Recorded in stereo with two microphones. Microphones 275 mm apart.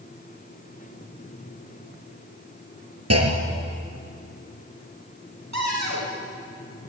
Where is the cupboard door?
75° right (ahead or behind), 4.5 m.